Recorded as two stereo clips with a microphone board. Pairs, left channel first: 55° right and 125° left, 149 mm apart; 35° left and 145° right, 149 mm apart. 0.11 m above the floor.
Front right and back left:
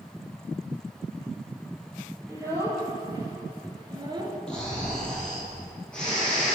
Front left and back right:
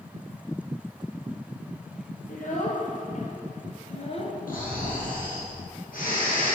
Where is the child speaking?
55° left, 2.5 m; by 4.4 s 75° left, 1.2 m.